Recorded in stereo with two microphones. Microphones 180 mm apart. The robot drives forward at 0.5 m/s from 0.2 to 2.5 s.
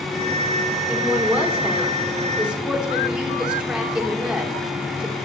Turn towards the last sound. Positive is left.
turn(degrees=-5)  # may be behind; listen again after turning